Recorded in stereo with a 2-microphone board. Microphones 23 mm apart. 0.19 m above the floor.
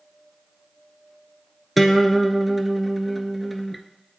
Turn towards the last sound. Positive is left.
turn(degrees=5)  # may be behind; listen again after turning